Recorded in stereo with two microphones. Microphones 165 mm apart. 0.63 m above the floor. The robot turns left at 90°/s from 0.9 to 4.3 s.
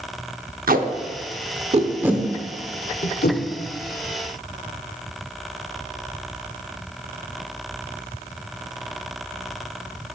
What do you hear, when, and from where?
0.7 s tape being pulled: 65° right (ahead or behind), 0.6 m; by 3.4 s 70° left (ahead or behind), 0.6 m